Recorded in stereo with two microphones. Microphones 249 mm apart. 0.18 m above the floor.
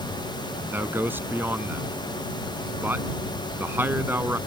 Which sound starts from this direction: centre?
A man speaking, at 0.7 s.